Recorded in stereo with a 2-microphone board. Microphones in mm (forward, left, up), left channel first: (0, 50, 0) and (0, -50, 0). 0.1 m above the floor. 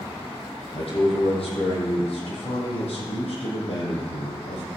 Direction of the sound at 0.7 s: 70° left (ahead or behind).